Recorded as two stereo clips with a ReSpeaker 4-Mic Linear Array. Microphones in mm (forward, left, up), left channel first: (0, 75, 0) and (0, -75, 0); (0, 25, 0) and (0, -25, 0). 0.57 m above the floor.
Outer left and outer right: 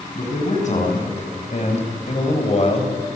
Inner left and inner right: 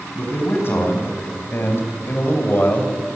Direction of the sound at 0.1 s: 55° left (ahead or behind).